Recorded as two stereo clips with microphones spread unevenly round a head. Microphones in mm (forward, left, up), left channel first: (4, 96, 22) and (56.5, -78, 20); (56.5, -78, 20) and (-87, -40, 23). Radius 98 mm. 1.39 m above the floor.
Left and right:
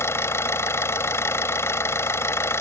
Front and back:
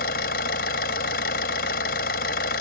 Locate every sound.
0.0 s an engine running: 30° left